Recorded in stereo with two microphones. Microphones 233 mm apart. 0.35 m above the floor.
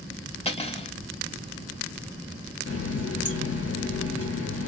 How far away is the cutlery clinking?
About 0.7 m.